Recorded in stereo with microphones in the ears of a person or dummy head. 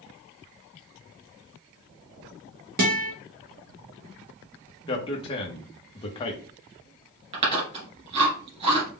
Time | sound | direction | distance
2.8 | a guitar | 35° right (ahead or behind) | 1.0 m
4.9 | a man speaking | 30° left (ahead or behind) | 1.0 m
7.3 | chewing | 40° right (ahead or behind) | 2 m